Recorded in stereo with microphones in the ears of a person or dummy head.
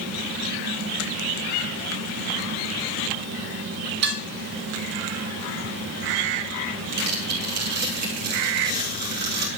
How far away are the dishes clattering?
About 2 m.